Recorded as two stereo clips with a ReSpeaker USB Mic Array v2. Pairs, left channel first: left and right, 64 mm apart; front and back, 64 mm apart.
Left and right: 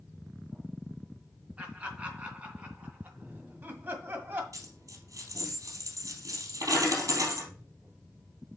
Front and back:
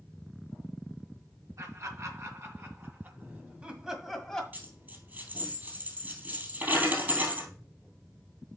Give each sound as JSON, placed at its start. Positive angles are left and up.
{"t": 1.6, "sound": "laughter", "azimuth_deg": -160, "distance_m": 3.5}
{"t": 4.5, "sound": "a dropped coin", "azimuth_deg": -120, "distance_m": 2.5}